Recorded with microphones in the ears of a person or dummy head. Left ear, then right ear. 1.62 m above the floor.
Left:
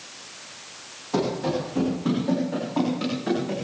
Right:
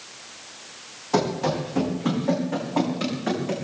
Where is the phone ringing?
I don't hear a phone ringing.